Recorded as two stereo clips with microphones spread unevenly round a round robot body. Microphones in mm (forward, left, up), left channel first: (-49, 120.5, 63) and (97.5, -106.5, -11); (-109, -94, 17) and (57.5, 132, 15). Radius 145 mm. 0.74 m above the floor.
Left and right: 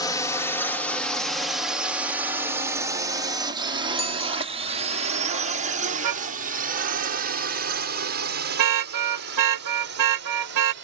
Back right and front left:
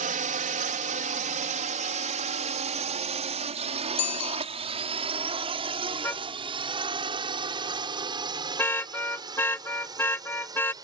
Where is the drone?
30° left; by 10.8 s 25° right.